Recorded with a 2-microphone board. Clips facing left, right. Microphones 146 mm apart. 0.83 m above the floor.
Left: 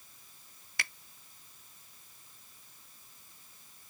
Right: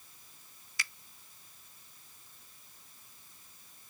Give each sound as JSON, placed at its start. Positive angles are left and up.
{"t": 0.8, "sound": "a finger snap", "side_deg": 60}